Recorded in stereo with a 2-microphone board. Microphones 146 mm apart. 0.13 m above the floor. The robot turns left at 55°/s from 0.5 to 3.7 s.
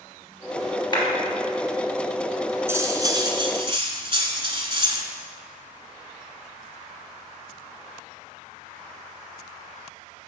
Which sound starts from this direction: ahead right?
Cutlery clinking, at 2.7 s.